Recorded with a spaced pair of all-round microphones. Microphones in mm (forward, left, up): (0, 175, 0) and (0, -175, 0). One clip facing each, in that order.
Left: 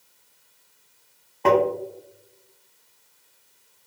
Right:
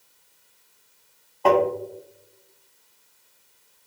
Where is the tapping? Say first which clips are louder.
Even; 30° left (ahead or behind), 0.7 m.